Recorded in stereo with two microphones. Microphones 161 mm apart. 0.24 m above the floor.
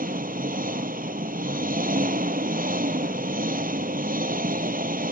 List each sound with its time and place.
0.0 s an engine running: 70° right (ahead or behind)